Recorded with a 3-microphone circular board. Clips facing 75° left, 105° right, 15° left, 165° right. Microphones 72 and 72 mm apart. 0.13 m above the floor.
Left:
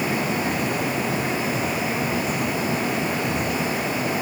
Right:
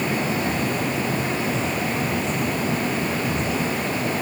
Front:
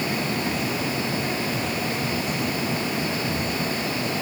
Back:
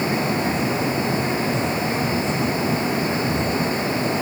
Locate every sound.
Only background noise.